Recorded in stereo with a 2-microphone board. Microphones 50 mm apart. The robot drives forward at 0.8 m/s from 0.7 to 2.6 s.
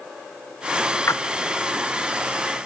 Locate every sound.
1.1 s a splash: 60° left (ahead or behind), 0.7 m; by 1.2 s 50° left (ahead or behind), 0.7 m